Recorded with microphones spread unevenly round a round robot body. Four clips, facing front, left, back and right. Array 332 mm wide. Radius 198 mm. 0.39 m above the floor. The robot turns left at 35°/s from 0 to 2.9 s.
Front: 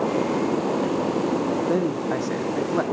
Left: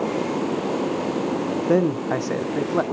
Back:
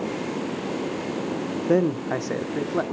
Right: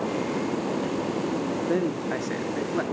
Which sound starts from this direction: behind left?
A man speaking, at 1.7 s.